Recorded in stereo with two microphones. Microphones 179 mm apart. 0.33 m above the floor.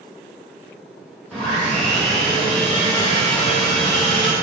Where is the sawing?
5° left (ahead or behind), 1.0 m.